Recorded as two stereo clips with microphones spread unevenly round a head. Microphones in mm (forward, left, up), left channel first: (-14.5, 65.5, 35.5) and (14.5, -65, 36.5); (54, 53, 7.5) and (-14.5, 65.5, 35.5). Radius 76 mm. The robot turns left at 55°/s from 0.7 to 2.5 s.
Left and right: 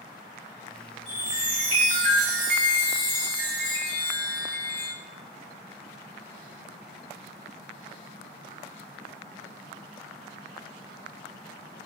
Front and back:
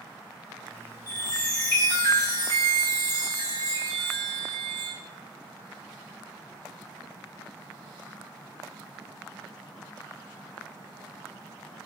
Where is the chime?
10° left, 2 m; by 4.9 s 70° right, 2 m.